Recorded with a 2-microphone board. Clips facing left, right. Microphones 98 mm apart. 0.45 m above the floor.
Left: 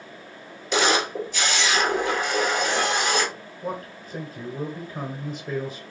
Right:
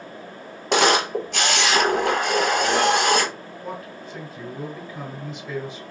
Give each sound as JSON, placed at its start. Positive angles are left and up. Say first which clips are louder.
{"t": 0.7, "sound": "a camera shutter", "louder": "right 3 dB", "side_deg": -70, "distance_m": 0.9}
{"t": 3.6, "sound": "a man speaking", "louder": "left 3 dB", "side_deg": 45, "distance_m": 1.2}